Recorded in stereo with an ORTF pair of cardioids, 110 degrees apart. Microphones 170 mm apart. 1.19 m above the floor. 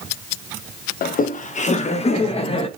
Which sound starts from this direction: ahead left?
Laughter, at 1.0 s.